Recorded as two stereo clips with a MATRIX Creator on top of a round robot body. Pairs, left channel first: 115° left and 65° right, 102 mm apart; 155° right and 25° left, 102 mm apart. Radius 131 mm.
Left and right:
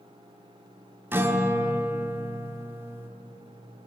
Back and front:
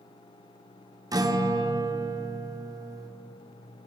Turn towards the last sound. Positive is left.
turn(degrees=-10)